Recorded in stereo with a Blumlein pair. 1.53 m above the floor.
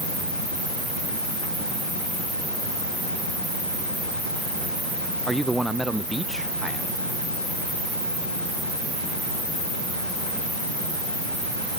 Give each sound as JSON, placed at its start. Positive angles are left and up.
{"t": 5.3, "sound": "a man speaking", "azimuth_deg": -5}